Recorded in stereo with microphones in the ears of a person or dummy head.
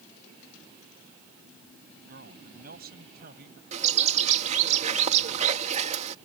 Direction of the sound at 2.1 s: 60° right (ahead or behind).